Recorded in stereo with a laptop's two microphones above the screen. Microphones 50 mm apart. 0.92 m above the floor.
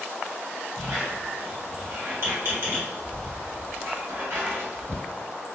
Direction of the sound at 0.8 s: 55° right (ahead or behind).